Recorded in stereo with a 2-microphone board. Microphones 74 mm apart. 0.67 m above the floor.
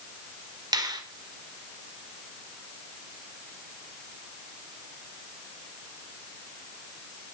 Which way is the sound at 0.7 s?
65° right (ahead or behind).